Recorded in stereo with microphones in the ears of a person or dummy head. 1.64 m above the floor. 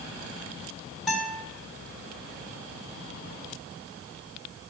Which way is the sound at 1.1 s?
Centre (ahead or behind).